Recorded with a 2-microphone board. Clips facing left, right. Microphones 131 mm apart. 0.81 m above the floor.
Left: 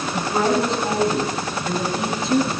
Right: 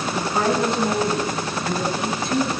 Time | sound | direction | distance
0.1 | a woman speaking | 30° left (ahead or behind) | 8 m